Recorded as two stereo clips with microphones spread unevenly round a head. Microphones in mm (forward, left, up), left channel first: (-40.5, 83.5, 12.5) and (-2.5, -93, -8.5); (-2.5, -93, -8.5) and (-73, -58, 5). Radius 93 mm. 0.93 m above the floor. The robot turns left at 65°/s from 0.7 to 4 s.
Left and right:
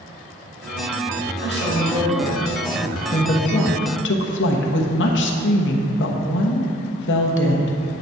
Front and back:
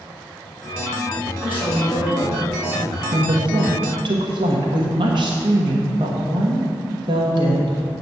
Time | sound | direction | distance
1.4 | a woman speaking | 70° left | 3 m
3.1 | a woman speaking | 170° left | 1.1 m